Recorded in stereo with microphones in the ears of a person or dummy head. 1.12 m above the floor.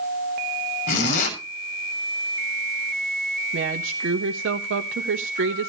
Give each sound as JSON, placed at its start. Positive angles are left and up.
{"t": 0.9, "sound": "a zipper", "side_deg": 35, "distance_m": 6.5}
{"t": 3.5, "sound": "a woman speaking", "side_deg": -55, "distance_m": 1.3}